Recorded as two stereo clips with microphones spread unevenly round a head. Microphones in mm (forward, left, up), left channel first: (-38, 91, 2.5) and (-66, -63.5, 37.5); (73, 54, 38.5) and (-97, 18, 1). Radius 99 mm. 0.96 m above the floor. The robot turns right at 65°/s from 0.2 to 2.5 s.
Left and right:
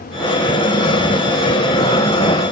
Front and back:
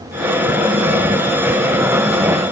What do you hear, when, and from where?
Only background noise.